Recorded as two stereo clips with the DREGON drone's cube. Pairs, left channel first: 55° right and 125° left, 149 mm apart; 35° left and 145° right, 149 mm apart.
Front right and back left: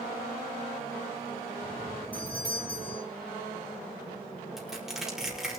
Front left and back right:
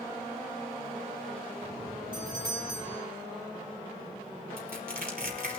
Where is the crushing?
150° right, 4.5 m.